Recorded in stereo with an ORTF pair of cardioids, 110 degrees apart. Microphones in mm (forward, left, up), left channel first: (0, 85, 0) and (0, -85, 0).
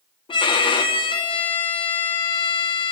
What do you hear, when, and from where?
0.3 s a violin: 25° left, 1.8 m